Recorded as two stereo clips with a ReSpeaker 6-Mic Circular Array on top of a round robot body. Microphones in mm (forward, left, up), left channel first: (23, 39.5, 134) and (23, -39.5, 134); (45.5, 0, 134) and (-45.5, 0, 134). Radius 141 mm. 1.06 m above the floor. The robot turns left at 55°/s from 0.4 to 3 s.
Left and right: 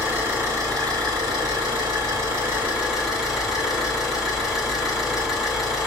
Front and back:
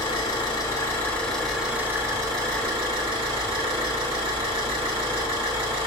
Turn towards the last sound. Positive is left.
turn(degrees=-175)